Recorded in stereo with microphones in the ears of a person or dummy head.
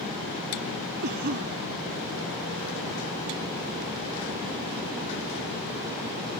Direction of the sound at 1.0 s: 50° right (ahead or behind).